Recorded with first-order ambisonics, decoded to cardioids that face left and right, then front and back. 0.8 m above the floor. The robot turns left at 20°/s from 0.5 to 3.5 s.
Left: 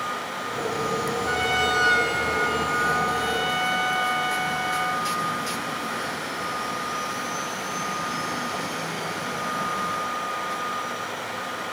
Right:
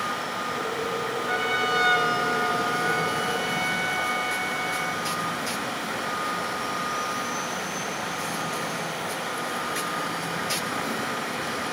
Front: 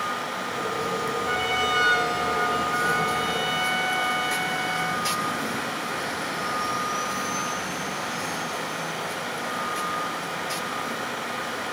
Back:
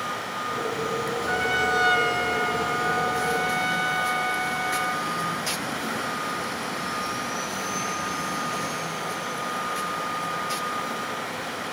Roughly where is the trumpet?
Left.